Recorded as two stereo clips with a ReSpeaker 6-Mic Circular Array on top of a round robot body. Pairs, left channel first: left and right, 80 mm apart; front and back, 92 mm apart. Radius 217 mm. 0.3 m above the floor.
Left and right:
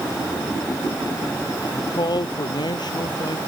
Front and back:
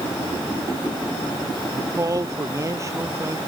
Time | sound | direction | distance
1.7 | a man speaking | 125° left | ?